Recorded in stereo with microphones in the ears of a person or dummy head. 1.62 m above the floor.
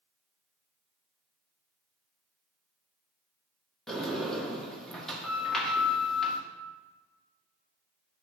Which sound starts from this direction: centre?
A sliding door, at 3.9 s.